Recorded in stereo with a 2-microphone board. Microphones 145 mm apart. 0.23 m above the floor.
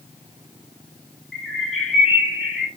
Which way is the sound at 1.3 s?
5° right (ahead or behind).